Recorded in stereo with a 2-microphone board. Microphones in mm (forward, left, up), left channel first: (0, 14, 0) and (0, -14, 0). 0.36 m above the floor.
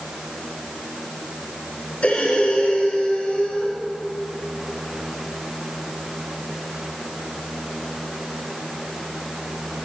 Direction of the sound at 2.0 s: 55° left (ahead or behind).